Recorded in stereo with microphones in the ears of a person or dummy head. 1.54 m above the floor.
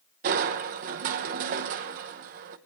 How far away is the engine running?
I don't hear an engine running.